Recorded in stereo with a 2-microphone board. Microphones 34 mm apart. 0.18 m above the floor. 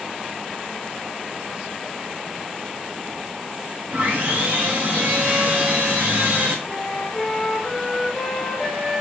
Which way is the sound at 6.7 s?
10° right (ahead or behind).